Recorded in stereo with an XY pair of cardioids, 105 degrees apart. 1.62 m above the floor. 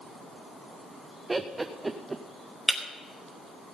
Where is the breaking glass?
5° left, 3 m.